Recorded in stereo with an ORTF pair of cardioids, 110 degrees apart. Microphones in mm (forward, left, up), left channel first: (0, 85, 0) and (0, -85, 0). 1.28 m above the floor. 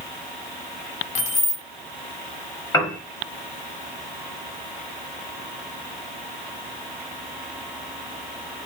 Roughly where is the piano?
Ahead.